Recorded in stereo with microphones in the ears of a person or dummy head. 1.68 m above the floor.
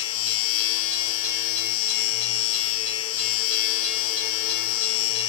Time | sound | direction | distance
0.0 | a machine running | 80° left | ?